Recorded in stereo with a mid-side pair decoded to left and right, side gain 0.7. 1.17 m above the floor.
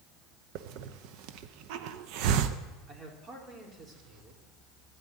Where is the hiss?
65° right, 0.9 m.